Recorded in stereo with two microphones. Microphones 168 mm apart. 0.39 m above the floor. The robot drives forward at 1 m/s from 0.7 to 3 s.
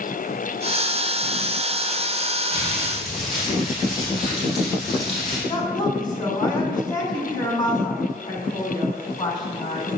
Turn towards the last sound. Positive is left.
turn(degrees=25)  # may be behind; listen again after turning